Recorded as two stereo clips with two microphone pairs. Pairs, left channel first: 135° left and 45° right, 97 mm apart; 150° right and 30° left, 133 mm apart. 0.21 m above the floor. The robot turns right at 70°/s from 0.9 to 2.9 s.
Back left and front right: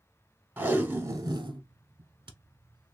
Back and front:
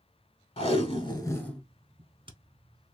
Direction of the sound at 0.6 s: 110° right.